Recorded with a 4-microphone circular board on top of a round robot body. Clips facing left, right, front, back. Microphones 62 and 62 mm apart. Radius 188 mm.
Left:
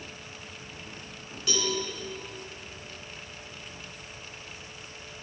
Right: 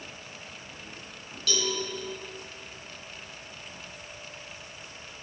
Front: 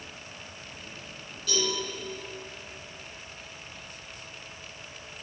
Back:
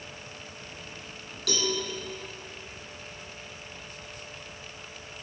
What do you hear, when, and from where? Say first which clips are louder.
1.5 s a cowbell: even, even; 155° left, 4.5 m